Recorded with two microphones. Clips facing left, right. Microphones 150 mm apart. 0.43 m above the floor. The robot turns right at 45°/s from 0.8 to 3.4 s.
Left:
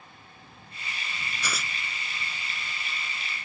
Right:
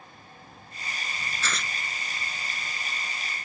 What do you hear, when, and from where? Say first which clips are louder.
1.4 s tearing paper: right 1 dB; 15° left (ahead or behind); by 1.7 s centre (ahead or behind)